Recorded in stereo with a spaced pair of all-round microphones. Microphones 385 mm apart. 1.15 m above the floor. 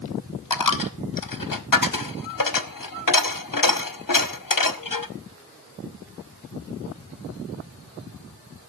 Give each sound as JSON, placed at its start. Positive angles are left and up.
{"t": 0.5, "sound": "a dropped coin", "side_deg": 60, "distance_m": 0.9}